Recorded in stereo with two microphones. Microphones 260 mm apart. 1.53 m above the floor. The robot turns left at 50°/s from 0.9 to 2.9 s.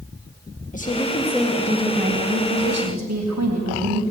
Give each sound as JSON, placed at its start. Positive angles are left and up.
{"t": 0.7, "sound": "a woman speaking", "azimuth_deg": 25, "distance_m": 1.6}